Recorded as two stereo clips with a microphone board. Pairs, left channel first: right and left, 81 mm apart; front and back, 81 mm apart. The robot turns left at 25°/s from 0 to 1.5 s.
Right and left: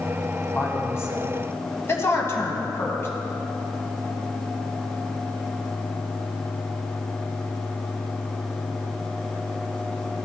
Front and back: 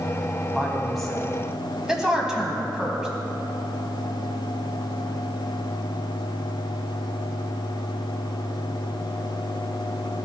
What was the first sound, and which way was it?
A woman speaking, 80° right.